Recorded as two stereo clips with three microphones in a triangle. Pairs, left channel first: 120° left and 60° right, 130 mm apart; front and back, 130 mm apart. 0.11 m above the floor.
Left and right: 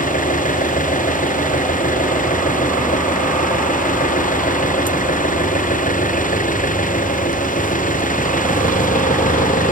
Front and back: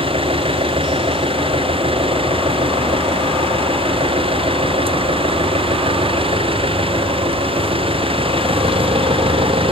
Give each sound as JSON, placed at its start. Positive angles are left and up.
{"t": 0.0, "sound": "an engine running", "azimuth_deg": 130}